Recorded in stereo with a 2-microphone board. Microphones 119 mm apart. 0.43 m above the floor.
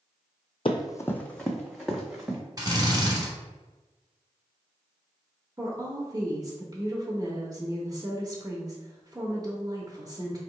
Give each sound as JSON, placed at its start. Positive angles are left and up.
{"t": 0.7, "sound": "running footsteps", "side_deg": 50, "distance_m": 0.7}
{"t": 2.6, "sound": "a drill", "side_deg": -30, "distance_m": 1.4}
{"t": 5.6, "sound": "a woman speaking", "side_deg": -35, "distance_m": 0.9}